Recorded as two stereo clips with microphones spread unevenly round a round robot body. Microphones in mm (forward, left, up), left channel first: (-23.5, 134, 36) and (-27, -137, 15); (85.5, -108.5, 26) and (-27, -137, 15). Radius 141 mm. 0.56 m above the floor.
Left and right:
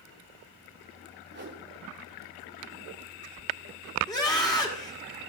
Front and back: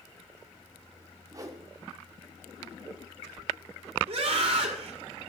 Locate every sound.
1.3 s a whoosh: 120° right, 1.5 m
4.1 s a scream: 165° left, 2.0 m